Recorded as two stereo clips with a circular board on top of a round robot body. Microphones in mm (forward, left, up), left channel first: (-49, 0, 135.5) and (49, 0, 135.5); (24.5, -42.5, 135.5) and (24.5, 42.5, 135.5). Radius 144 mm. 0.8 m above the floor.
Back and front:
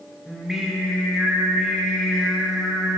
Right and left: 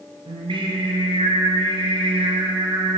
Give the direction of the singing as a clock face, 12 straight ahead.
9 o'clock.